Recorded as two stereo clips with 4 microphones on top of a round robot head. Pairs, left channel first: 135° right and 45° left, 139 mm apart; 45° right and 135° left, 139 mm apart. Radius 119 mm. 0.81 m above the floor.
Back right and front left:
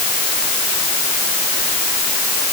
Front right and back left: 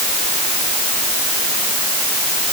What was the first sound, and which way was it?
Only background noise.